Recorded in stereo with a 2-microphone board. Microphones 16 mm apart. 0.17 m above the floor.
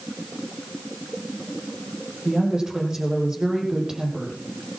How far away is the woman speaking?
About 6.5 m.